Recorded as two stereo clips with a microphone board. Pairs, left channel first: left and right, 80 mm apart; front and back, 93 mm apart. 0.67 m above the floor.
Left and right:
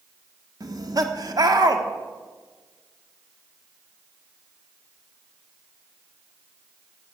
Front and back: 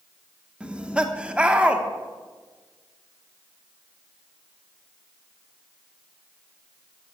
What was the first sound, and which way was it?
Laughter, 105° right.